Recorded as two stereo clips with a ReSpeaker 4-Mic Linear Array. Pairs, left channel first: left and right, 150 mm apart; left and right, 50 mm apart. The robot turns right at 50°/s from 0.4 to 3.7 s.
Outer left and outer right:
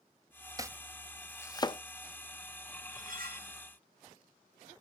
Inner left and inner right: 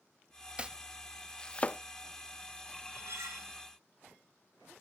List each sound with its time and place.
0.6 s chopping: 25° right (ahead or behind), 0.5 m; by 1.8 s 35° left (ahead or behind), 0.5 m
2.9 s cutlery clinking: 120° right, 2.5 m; by 3.5 s 85° right, 2.5 m